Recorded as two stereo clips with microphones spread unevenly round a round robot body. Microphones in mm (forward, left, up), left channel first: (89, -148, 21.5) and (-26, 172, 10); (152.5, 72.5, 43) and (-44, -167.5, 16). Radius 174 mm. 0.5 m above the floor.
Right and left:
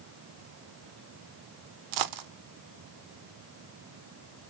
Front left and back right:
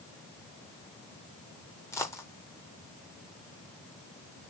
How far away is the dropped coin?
About 0.7 m.